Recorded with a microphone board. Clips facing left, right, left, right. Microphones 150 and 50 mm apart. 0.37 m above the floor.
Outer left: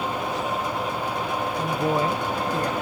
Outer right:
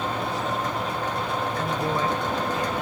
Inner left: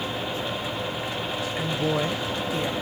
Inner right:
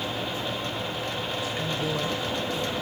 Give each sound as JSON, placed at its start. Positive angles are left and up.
{"t": 1.6, "sound": "a woman speaking", "side_deg": 10, "distance_m": 1.6}